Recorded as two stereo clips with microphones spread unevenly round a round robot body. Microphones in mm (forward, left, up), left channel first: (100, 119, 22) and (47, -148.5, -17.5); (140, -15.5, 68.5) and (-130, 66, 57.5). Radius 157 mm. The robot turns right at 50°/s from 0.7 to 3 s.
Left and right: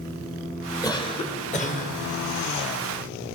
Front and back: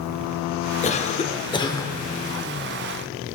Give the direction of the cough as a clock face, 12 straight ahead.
12 o'clock.